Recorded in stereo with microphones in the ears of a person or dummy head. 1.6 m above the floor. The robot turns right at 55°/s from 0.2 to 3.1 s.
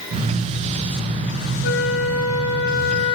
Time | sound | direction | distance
1.6 | a flute | 65° left | 0.9 m